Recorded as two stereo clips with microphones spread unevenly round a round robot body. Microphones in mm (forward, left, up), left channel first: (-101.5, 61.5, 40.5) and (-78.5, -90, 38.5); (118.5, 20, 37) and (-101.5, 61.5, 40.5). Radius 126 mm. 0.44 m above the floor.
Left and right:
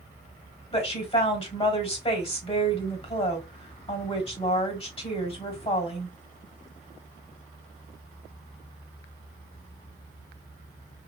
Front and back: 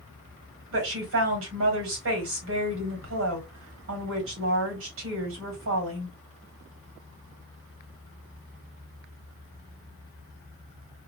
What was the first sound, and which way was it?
A woman speaking, 150° left.